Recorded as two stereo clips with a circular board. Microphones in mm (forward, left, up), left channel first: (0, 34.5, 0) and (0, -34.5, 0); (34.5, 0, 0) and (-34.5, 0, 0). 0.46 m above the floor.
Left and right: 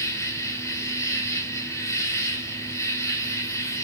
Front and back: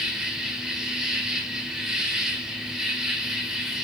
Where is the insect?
100° left, 2 m.